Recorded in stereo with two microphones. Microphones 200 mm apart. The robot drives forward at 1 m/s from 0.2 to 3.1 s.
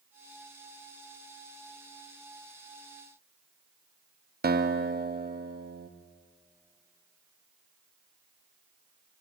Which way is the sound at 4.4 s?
50° right (ahead or behind).